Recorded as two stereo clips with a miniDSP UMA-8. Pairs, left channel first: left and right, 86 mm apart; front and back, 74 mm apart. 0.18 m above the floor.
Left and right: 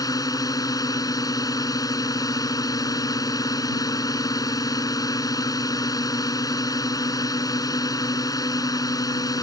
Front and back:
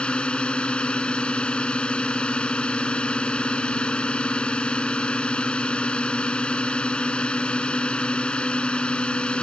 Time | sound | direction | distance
0.0 | a drone | 70° left | ?